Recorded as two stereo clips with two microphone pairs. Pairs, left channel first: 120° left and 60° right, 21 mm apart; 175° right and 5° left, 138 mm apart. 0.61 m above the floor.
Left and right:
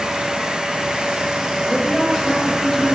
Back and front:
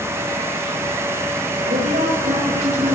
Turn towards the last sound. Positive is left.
turn(degrees=35)